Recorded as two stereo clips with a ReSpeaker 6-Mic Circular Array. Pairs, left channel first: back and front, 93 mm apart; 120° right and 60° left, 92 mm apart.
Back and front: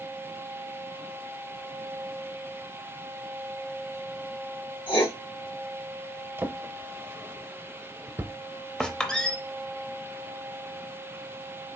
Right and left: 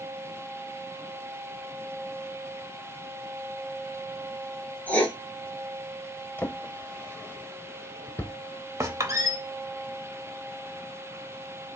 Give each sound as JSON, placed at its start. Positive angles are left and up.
{"t": 4.9, "sound": "writing", "azimuth_deg": 165, "distance_m": 2.0}
{"t": 6.4, "sound": "a drawer", "azimuth_deg": -55, "distance_m": 0.5}
{"t": 8.8, "sound": "a squeak", "azimuth_deg": 100, "distance_m": 0.7}